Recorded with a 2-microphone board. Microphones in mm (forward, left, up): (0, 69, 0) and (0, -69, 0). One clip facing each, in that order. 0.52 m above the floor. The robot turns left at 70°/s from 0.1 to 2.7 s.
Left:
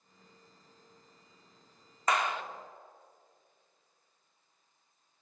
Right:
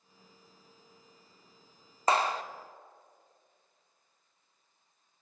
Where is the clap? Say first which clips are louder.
Right 3 dB; 30° right (ahead or behind), 0.6 m; by 2.4 s 35° right (ahead or behind), 0.6 m.